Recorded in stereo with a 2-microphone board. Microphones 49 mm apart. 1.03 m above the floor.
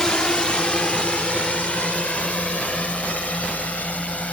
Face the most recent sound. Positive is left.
turn(degrees=30)  # may be behind; listen again after turning